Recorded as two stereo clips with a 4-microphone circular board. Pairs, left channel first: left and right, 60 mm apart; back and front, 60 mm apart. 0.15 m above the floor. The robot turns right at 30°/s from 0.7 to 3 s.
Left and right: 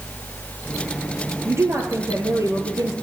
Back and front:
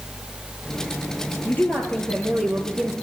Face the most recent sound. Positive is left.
turn(degrees=-85)